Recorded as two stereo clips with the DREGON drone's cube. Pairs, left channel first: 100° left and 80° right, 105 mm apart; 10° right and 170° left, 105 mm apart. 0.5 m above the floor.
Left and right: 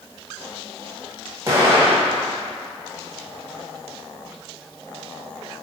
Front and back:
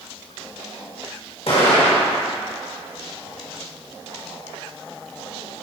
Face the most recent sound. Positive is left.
turn(degrees=-20)